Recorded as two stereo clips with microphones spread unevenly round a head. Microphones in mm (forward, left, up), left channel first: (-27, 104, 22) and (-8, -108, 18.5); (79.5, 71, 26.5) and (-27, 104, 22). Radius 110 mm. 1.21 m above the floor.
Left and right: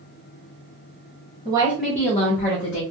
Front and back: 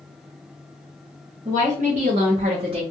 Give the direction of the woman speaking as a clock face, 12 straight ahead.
5 o'clock.